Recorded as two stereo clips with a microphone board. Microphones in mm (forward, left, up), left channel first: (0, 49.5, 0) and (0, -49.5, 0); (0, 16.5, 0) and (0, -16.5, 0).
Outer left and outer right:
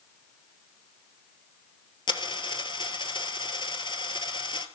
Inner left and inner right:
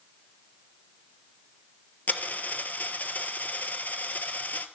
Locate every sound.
2.1 s a dropped coin: 55° left (ahead or behind), 1.3 m